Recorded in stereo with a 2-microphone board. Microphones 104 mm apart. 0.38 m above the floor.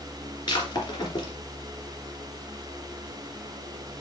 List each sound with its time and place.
0.5 s breaking glass: 45° left (ahead or behind), 3 m